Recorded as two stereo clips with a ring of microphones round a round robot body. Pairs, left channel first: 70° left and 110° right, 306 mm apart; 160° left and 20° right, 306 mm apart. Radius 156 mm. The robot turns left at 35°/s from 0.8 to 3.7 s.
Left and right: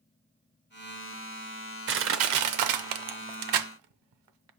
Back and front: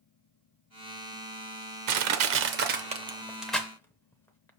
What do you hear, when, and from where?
1.9 s crushing: 55° right, 0.6 m; by 4.5 s 120° right, 0.6 m